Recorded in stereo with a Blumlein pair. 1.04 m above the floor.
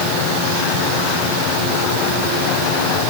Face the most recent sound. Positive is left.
No sound to turn to.